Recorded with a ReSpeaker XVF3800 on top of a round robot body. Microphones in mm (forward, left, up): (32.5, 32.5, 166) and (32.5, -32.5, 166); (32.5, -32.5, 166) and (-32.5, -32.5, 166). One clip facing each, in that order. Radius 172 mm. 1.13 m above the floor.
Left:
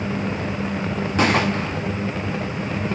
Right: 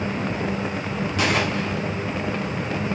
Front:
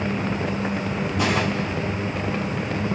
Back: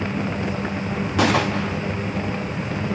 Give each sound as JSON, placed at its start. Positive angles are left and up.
{"t": 1.2, "sound": "a gunshot", "azimuth_deg": 150, "distance_m": 0.8}